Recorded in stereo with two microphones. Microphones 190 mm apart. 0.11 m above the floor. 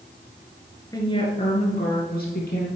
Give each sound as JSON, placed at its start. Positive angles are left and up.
{"t": 0.9, "sound": "a woman speaking", "side_deg": 20, "distance_m": 1.9}